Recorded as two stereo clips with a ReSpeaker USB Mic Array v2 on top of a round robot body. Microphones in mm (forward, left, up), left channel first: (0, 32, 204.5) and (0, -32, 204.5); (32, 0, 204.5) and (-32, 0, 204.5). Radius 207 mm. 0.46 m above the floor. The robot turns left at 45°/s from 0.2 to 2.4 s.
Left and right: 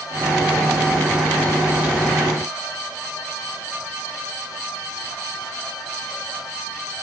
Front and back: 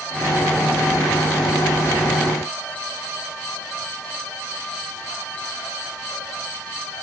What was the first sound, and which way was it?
Only background noise.